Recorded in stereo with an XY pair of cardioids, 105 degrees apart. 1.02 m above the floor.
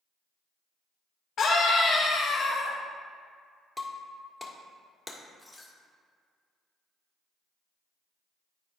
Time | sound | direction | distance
1.4 | a scream | 55° left | 1.1 m
3.8 | breaking glass | 15° left | 1.5 m